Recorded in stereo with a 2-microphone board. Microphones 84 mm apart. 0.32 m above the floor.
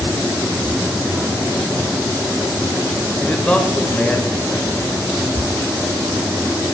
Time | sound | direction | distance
3.2 | a man speaking | 15° left (ahead or behind) | 0.9 m